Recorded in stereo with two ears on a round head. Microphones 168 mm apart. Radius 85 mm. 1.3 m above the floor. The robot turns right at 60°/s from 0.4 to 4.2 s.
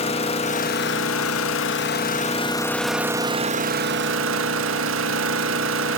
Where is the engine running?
30° left, 1.4 m; by 6.0 s 100° right, 1.4 m.